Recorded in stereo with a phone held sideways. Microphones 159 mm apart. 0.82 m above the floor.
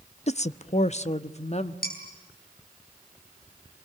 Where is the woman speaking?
50° left (ahead or behind), 0.6 m; by 1.7 s 45° left (ahead or behind), 1.3 m.